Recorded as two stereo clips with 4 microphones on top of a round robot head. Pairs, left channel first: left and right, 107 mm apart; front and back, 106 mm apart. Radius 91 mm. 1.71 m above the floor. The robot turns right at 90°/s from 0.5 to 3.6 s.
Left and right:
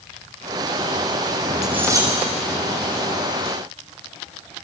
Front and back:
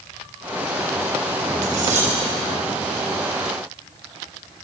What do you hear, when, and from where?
1.6 s cutlery clinking: 175° right, 6 m; by 2.1 s 135° right, 6 m